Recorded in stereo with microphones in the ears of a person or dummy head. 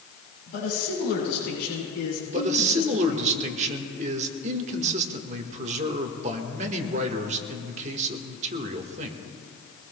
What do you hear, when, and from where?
0.5 s a man speaking: 55° left (ahead or behind), 7 m; by 3.3 s 75° left (ahead or behind), 7 m
2.3 s a man speaking: 40° right (ahead or behind), 1.5 m